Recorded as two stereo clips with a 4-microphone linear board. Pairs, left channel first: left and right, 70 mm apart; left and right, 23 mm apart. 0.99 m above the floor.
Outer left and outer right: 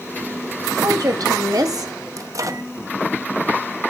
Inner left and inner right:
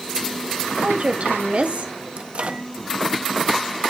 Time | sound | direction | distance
0.8 | a woman speaking | 65° right (ahead or behind) | 2 m
2.2 | a microwave | 55° right (ahead or behind) | 0.8 m